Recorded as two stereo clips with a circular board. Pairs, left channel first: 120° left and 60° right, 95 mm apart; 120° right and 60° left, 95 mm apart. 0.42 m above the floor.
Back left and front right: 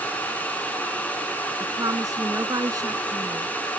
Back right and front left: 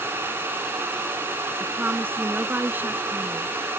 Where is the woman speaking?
10° right.